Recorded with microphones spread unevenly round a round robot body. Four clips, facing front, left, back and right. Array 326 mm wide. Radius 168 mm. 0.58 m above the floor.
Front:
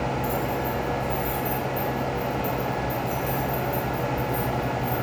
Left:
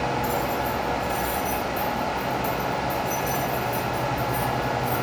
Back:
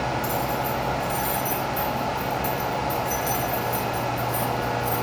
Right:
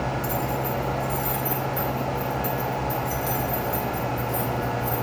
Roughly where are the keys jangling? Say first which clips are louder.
Left 2 dB, back 1 dB; behind right.